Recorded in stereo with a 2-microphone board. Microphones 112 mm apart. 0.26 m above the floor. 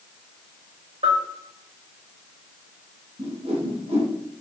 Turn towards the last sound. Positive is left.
turn(degrees=-60)  # may be behind; listen again after turning